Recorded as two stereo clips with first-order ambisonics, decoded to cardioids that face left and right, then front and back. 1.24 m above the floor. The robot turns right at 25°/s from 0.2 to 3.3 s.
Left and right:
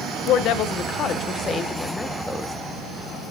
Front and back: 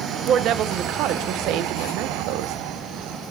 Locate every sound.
0.3 s a woman speaking: 125° left, 0.8 m; by 2.5 s 175° right, 0.8 m